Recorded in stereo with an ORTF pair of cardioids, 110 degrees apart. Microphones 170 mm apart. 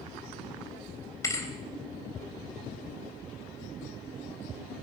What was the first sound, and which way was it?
A thud, 20° left.